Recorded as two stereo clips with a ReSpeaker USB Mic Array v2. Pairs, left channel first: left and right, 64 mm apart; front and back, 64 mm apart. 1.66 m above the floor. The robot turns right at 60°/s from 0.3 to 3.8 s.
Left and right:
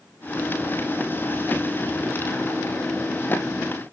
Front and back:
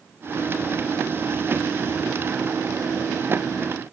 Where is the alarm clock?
I don't hear an alarm clock.